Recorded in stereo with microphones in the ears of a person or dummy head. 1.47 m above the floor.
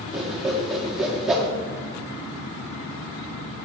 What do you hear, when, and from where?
0.1 s a whoosh: 5° right (ahead or behind), 2.5 m